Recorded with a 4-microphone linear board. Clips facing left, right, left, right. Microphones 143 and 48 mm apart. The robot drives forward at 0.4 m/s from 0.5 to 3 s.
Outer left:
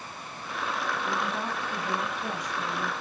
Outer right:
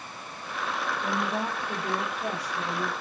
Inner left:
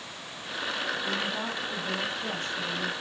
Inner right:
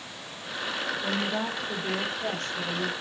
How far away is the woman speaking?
About 7 m.